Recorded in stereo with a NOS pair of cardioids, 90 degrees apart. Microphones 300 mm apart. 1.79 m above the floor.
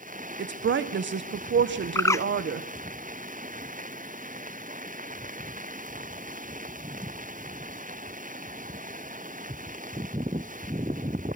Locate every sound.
0.4 s a woman speaking: 40° right, 1.7 m
1.9 s a bird: 10° left, 0.7 m